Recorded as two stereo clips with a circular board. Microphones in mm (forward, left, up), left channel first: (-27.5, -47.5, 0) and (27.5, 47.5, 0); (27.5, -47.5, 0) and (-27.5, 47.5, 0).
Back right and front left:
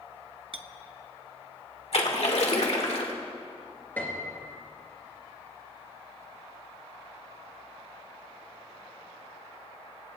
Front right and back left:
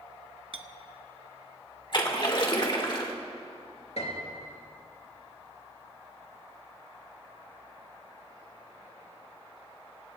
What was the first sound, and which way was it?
A clink, 90° left.